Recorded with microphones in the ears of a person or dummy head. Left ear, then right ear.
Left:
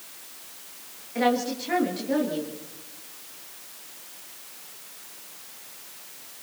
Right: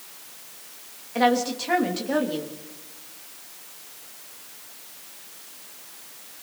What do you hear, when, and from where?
1.1 s a woman speaking: 35° right (ahead or behind), 3 m